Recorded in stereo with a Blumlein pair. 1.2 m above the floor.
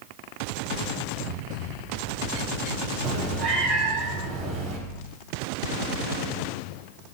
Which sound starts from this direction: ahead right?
A cat meowing, at 3.0 s.